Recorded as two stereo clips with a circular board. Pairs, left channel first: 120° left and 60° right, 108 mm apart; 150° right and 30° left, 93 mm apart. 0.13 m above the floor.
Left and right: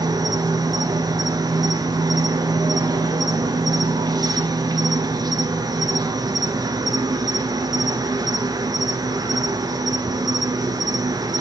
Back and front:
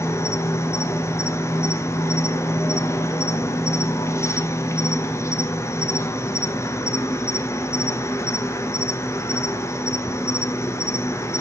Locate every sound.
0.0 s an insect: 100° right, 1.0 m